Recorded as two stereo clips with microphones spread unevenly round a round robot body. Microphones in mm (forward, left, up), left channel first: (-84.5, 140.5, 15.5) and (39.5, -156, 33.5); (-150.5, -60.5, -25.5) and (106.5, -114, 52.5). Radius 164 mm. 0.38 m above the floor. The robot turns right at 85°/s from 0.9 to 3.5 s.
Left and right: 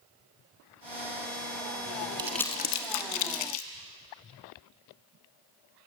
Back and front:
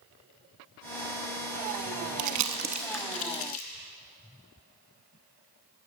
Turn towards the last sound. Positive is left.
turn(degrees=120)